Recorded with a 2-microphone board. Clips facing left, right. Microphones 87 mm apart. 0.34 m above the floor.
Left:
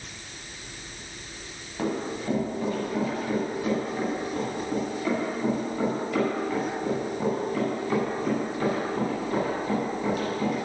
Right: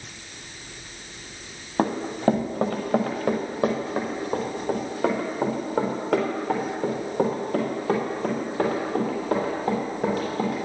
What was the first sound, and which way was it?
Running footsteps, 60° right (ahead or behind).